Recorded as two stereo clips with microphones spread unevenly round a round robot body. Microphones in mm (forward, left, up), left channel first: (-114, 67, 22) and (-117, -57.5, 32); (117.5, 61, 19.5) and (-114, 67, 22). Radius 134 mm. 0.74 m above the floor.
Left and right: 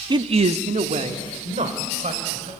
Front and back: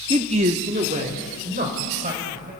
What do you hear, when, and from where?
0.1 s a man speaking: 125° right, 0.6 m; by 2.5 s 120° right, 4 m